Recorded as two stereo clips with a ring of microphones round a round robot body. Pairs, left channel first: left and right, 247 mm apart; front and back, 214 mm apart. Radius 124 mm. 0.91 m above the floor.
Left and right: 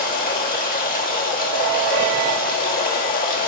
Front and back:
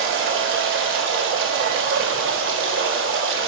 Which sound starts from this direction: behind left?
Running water, at 0.0 s.